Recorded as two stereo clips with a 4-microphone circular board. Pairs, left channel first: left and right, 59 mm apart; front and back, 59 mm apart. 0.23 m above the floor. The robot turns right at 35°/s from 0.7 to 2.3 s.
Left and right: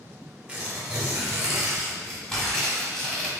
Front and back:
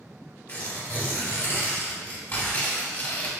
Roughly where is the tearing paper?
Ahead right.